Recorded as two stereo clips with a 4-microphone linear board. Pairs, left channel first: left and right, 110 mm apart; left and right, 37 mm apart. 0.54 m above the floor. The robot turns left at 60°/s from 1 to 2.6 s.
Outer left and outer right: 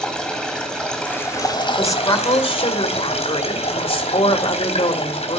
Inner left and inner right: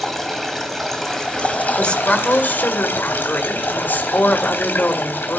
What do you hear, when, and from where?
0.0 s running water: 175° left, 3 m; by 5.4 s 75° left, 3 m
1.8 s a woman speaking: 155° left, 2.5 m; by 5.4 s 105° left, 2.5 m